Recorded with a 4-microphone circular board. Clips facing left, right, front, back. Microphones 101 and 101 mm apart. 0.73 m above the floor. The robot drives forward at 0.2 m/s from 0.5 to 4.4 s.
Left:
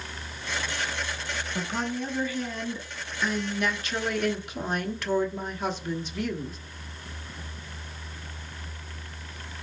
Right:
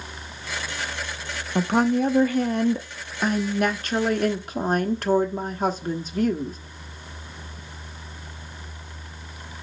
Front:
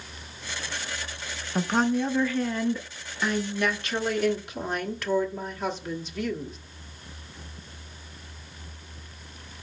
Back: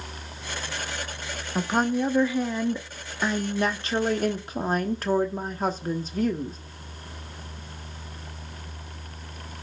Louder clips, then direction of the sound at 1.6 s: Right 12 dB, even; 95° right.